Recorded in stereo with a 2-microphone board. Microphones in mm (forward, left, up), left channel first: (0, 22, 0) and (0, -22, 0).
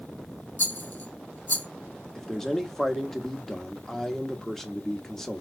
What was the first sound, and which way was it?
A rattle, 45° left (ahead or behind).